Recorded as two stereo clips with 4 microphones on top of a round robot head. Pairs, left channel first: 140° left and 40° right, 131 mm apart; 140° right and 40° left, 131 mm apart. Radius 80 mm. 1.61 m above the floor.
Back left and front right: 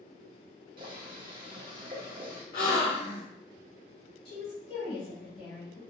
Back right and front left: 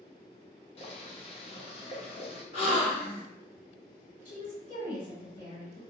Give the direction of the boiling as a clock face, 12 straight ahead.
3 o'clock.